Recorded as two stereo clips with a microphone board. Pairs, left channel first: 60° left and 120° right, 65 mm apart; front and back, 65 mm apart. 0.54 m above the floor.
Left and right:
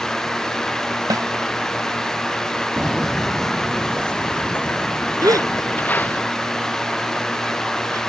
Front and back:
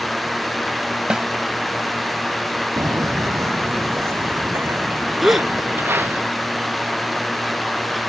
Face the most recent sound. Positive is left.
turn(degrees=-90)